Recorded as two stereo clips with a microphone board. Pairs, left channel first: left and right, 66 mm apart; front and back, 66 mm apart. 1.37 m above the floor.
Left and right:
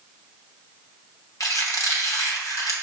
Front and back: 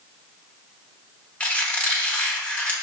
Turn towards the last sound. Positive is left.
turn(degrees=65)